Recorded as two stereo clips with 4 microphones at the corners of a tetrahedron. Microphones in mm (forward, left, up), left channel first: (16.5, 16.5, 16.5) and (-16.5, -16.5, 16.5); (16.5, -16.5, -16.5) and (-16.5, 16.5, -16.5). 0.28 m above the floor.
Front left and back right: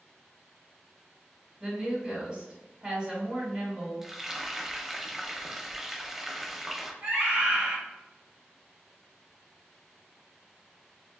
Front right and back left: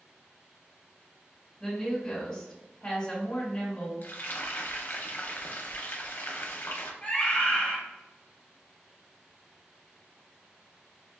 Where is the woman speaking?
110° right, 1.7 m.